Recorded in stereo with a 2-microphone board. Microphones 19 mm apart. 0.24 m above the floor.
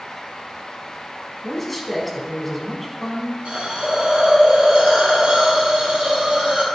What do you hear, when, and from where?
1.4 s a man speaking: 5° left (ahead or behind), 1.6 m
3.5 s a hiss: 75° right (ahead or behind), 3 m